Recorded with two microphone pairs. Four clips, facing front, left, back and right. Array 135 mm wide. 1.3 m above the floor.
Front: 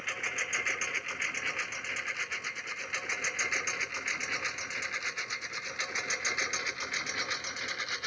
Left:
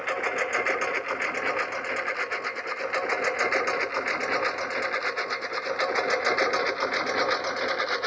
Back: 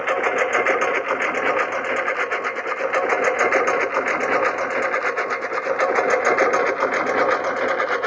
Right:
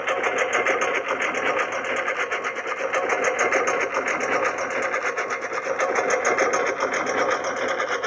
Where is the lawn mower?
160° right; by 8.1 s 165° right.